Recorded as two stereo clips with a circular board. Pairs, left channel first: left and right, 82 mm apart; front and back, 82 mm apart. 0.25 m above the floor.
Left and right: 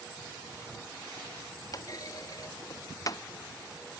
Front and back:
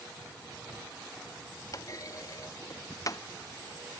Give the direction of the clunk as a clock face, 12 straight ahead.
10 o'clock.